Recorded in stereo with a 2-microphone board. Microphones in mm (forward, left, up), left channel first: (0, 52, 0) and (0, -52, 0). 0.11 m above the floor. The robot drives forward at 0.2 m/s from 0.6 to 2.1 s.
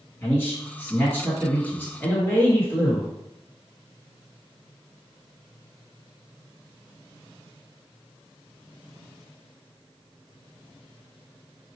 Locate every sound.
0.2 s a man speaking: 20° left (ahead or behind), 1.9 m